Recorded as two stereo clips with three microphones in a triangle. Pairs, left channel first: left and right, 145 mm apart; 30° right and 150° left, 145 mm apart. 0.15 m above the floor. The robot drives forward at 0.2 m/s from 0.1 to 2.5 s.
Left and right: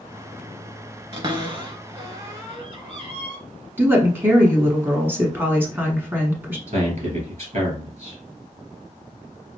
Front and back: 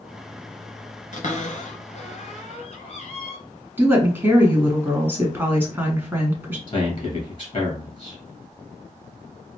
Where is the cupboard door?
40° right, 1.1 m; by 3.4 s 50° right, 1.0 m.